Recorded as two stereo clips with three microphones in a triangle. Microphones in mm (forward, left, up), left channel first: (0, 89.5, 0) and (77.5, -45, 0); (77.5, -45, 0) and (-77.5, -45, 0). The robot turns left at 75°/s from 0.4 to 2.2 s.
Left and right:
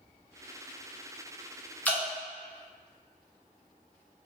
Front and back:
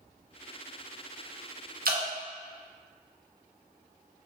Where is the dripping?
160° right, 0.5 m; by 2.0 s 170° right, 0.5 m.